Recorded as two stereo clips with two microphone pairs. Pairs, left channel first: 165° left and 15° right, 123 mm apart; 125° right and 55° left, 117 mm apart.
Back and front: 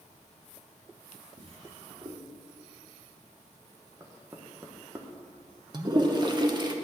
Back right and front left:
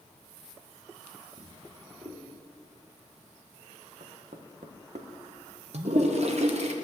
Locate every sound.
1.4 s a drawer: 20° left, 1.9 m
4.0 s knocking: 50° left, 1.2 m
5.7 s a toilet flushing: 35° left, 1.0 m